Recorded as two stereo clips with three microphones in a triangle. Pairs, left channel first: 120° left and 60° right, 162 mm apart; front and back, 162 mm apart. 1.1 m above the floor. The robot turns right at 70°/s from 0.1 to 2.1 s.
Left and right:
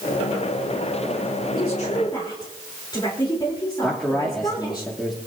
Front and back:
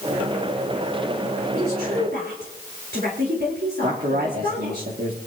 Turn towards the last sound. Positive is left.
turn(degrees=-150)